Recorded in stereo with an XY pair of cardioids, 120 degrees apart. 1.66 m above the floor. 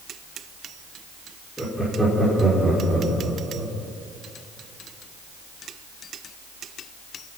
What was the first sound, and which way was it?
Laughter, 5° left.